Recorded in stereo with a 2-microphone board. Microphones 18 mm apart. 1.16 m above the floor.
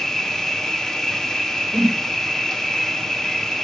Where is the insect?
35° left (ahead or behind), 1.6 m.